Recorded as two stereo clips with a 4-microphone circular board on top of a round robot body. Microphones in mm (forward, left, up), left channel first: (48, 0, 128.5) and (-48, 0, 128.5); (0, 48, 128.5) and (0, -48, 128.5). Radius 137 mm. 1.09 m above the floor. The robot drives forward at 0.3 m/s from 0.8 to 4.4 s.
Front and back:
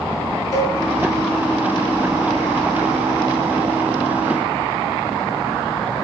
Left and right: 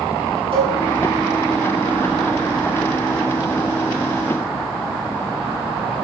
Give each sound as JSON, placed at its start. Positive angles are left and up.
{"t": 0.5, "sound": "a cowbell", "azimuth_deg": -60, "distance_m": 8.5}